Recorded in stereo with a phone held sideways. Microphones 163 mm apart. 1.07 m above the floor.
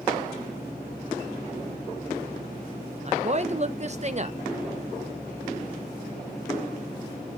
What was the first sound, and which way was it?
A woman speaking, 45° right (ahead or behind).